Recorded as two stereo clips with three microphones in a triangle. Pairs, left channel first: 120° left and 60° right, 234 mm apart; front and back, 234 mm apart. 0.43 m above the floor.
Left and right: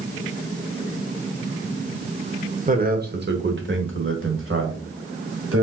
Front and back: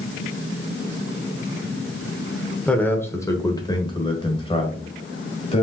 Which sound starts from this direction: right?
A man speaking, at 2.7 s.